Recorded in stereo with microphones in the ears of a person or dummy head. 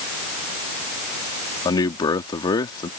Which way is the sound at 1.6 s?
20° left (ahead or behind).